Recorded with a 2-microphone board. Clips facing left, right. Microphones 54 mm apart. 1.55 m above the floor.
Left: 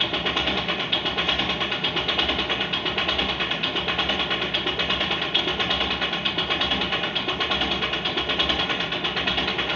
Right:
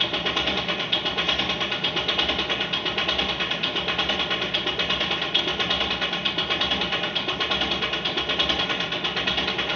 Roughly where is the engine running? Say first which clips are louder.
Left 1 dB; centre.